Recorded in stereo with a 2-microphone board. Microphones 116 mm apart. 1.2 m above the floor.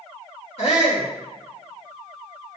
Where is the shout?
60° left (ahead or behind), 3 m.